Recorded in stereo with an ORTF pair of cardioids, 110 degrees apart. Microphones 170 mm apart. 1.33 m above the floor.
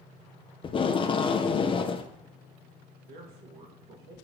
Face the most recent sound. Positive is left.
turn(degrees=-65)